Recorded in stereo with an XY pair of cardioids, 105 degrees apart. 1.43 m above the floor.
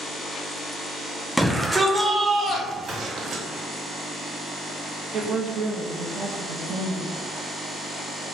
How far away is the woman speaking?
About 0.7 m.